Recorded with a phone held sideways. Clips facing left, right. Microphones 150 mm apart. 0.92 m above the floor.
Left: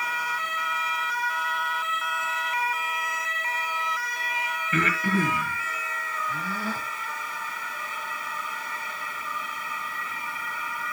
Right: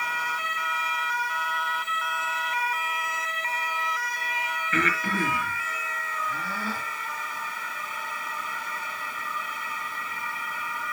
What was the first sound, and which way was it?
Breathing, 15° left (ahead or behind).